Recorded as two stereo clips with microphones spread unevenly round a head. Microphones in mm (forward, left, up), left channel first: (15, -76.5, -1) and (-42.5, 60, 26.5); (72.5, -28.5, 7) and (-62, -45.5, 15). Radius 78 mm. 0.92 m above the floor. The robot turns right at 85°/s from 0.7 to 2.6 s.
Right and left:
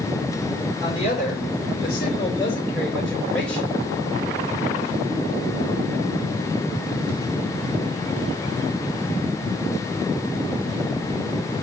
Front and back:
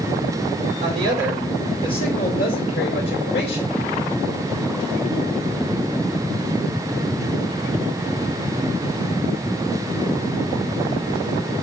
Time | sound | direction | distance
0.8 | a woman speaking | 135° right | 3.5 m